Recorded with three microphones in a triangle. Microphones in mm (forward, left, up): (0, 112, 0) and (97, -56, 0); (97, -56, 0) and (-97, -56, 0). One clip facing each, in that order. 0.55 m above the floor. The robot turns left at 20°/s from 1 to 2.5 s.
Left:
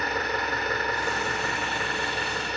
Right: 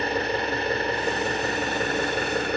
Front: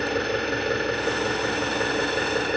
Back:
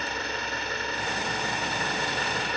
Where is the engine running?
Straight ahead, 1.4 m; by 2.6 s 30° right, 1.4 m.